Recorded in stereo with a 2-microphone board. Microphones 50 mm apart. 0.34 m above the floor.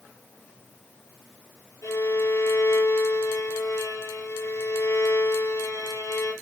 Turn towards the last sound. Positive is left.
turn(degrees=80)